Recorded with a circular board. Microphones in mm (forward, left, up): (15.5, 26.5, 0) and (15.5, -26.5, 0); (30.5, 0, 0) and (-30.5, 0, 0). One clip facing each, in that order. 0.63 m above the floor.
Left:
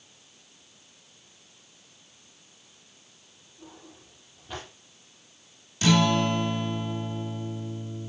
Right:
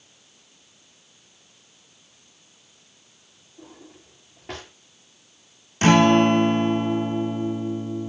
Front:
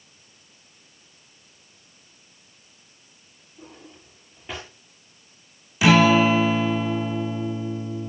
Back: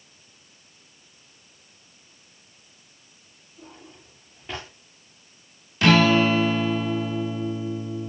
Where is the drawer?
85° right, 8 m.